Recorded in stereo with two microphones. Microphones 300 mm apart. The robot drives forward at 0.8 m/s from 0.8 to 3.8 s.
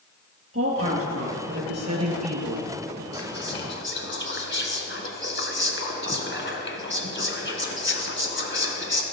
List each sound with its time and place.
0.5 s a woman speaking: 50° right (ahead or behind), 3.5 m; by 3.0 s 65° right (ahead or behind), 3 m
3.1 s whispering: 35° left (ahead or behind), 1.8 m; by 9.0 s 40° left (ahead or behind), 1.6 m